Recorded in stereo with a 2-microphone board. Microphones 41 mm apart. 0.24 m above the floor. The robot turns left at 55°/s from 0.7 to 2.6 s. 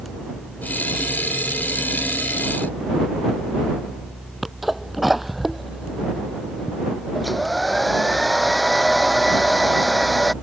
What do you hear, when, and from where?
4.4 s a sneeze: 5° right (ahead or behind)
7.2 s a hair dryer: centre (ahead or behind)